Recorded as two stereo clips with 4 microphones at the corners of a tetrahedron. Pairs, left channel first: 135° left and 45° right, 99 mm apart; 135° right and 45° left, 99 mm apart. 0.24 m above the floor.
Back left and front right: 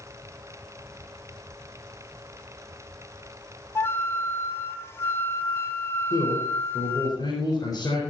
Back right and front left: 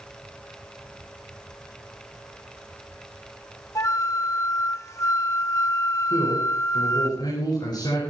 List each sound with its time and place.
3.8 s a flute: 175° right, 1.3 m
6.1 s a man speaking: straight behind, 5 m